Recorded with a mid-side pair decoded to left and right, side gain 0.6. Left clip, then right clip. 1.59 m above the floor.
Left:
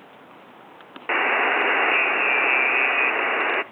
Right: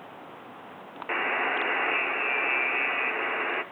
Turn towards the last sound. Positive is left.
turn(degrees=40)